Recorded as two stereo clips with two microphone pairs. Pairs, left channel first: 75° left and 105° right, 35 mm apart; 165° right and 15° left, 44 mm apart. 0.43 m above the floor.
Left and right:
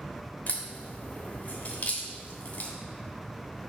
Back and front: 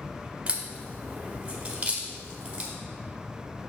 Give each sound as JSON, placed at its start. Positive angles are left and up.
{"t": 0.5, "sound": "a crack", "azimuth_deg": 65, "distance_m": 1.2}